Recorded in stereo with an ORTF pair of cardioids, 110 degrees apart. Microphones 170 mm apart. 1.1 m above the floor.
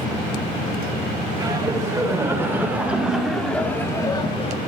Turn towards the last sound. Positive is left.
turn(degrees=40)